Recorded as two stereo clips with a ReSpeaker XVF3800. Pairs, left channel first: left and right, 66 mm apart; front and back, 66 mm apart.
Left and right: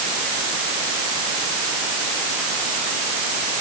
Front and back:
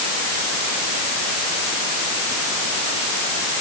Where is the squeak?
I don't hear a squeak.